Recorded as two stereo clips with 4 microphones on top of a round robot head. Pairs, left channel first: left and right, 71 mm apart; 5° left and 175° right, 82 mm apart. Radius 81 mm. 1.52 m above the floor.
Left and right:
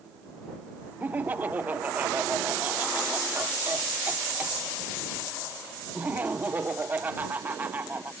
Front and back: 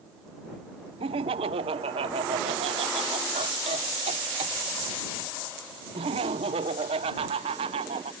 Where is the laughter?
165° right.